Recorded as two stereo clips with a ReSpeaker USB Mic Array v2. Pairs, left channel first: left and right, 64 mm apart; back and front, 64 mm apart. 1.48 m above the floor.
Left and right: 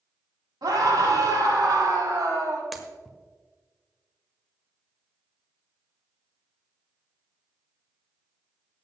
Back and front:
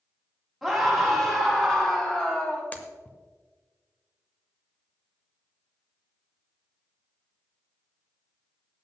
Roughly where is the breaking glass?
Behind.